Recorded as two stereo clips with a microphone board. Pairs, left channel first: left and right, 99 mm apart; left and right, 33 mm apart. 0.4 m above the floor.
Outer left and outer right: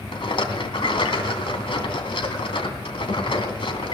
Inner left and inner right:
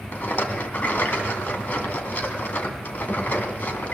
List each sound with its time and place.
0.1 s a rattle: 60° left (ahead or behind), 2.5 m